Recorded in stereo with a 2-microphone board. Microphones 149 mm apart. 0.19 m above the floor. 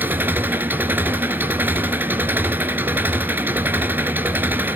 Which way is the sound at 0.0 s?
15° right (ahead or behind).